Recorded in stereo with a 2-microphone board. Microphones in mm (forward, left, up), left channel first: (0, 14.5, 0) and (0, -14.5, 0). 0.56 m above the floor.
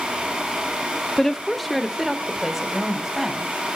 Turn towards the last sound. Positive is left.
turn(degrees=-5)  # may be behind; listen again after turning